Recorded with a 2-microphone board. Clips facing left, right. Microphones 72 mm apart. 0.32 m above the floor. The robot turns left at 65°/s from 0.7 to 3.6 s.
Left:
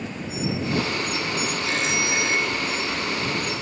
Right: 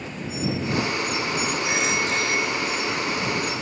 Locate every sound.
1.6 s a phone ringing: 165° right; by 3.6 s 70° left